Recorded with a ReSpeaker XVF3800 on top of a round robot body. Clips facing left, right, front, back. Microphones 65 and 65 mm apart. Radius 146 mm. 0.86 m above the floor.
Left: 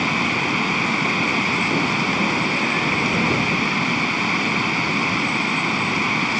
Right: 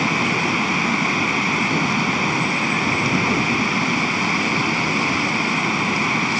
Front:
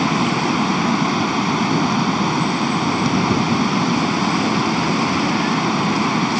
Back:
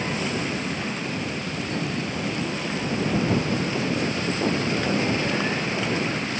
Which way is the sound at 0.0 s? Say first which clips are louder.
Right 1 dB, front 9 dB; 5° right.